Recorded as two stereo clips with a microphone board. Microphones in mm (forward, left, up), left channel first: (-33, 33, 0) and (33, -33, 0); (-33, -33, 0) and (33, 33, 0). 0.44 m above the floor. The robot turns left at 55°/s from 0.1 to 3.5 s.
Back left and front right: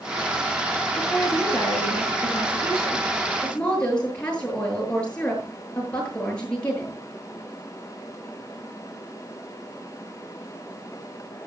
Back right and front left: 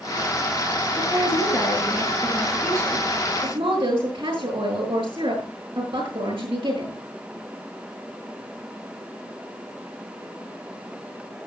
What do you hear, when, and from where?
1.0 s a woman speaking: 165° right, 8.5 m; by 7.0 s 60° left, 8.5 m